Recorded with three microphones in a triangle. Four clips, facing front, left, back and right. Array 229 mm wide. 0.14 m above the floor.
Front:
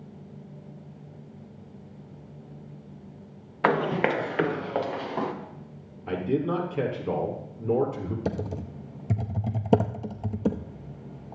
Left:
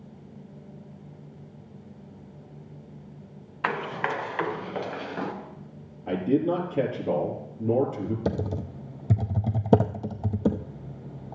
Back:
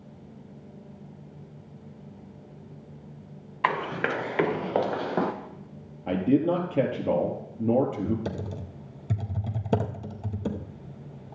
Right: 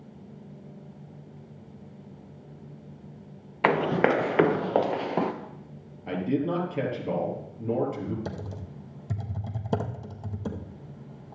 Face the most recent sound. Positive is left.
turn(degrees=70)